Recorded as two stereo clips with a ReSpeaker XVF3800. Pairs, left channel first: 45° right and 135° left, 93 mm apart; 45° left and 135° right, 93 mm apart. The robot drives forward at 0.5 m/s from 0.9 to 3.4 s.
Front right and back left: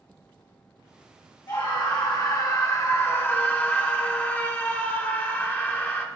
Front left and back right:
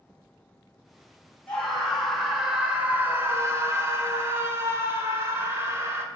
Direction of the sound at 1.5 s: 35° right.